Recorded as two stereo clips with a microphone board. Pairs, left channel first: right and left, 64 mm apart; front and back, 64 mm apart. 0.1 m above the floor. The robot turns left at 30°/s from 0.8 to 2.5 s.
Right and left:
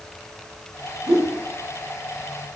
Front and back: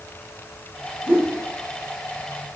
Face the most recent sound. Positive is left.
turn(degrees=70)